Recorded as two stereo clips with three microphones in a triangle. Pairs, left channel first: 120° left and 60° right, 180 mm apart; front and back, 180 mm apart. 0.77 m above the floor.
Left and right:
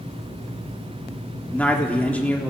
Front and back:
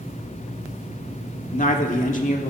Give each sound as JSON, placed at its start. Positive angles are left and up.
{"t": 1.5, "sound": "a man speaking", "azimuth_deg": 40, "distance_m": 1.4}